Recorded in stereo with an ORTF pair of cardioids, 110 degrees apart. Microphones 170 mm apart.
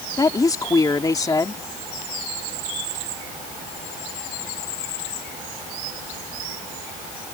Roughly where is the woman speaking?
Ahead.